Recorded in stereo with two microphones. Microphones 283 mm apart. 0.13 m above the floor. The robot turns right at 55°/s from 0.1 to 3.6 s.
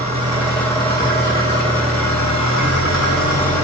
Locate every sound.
0.0 s an engine running: 25° right, 2.0 m; by 3.6 s 170° left, 2.0 m